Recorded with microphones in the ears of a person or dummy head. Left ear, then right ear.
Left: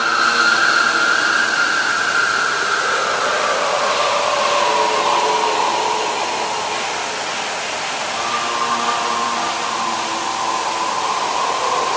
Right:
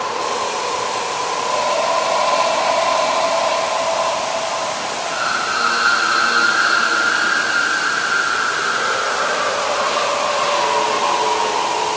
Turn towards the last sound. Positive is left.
No sound to turn to.